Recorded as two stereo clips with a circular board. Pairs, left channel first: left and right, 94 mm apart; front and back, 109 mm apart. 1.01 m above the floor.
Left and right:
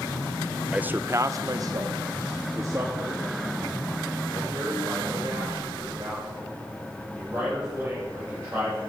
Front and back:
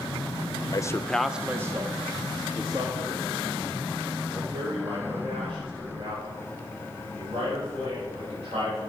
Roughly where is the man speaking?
Ahead.